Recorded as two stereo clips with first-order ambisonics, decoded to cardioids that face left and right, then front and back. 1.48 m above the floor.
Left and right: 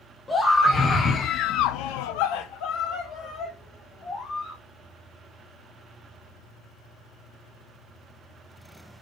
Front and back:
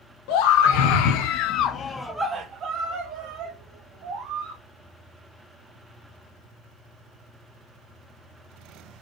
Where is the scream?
10° left, 1.2 m; by 4.6 s 155° left, 1.8 m.